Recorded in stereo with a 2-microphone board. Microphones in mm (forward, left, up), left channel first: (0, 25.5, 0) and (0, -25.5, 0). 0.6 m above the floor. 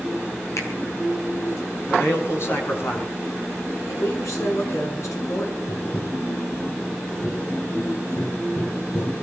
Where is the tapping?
60° left (ahead or behind), 5.5 m.